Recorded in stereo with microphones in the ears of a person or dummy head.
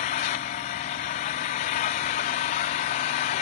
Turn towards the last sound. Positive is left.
turn(degrees=25)  # may be behind; listen again after turning